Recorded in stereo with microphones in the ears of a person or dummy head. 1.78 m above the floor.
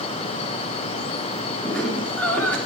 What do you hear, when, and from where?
1.6 s laughter: 15° left (ahead or behind), 4 m